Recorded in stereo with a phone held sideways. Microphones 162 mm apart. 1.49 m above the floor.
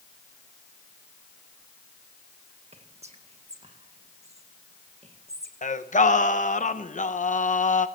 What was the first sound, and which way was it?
Whispering, 40° right (ahead or behind).